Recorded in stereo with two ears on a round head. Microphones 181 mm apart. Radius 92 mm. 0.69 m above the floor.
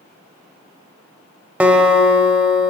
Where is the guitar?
10° right (ahead or behind), 0.9 m.